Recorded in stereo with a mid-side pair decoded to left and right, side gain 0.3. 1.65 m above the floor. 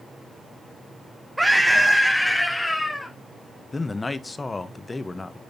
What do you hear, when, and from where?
1.4 s a scream: 15° right, 1.1 m; by 3.1 s 30° left, 2.5 m
3.7 s a man speaking: 35° left, 1.4 m